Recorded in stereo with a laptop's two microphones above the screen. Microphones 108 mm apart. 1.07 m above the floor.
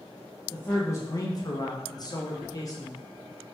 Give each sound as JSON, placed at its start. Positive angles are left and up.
{"t": 0.5, "sound": "a man speaking", "side_deg": 15, "distance_m": 0.6}